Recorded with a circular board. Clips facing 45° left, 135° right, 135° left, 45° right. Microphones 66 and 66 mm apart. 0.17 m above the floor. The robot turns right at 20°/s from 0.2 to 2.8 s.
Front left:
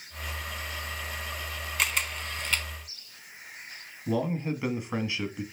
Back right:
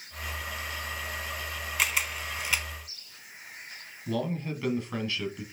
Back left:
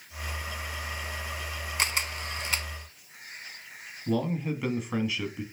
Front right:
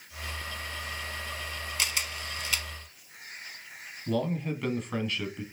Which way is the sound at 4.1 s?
65° left.